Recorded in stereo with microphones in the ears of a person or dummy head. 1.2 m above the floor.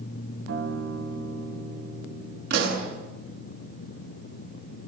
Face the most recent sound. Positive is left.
turn(degrees=-65)  # may be behind; listen again after turning